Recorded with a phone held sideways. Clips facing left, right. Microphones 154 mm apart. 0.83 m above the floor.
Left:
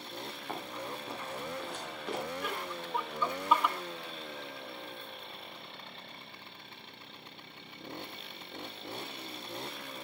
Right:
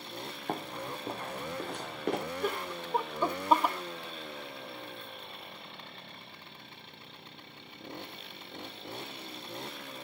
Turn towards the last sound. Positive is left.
turn(degrees=-40)  # may be behind; listen again after turning